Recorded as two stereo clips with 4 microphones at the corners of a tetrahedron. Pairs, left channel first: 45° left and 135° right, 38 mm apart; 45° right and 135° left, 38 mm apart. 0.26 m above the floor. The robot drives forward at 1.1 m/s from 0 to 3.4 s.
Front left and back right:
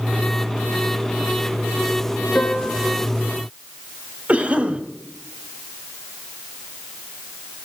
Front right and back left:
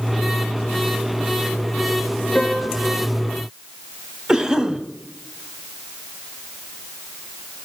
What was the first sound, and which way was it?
A piano, 15° left.